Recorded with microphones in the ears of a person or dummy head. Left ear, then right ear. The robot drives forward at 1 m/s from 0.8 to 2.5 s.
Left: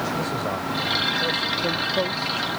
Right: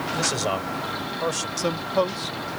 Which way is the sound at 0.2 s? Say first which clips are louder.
Right 2 dB; 70° right (ahead or behind).